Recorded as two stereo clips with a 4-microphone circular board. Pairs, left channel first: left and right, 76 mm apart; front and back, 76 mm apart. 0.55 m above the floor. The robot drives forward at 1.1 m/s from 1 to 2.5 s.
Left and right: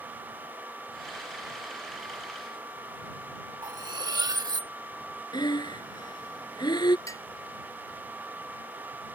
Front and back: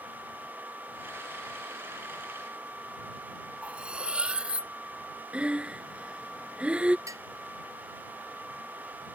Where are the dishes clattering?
135° left.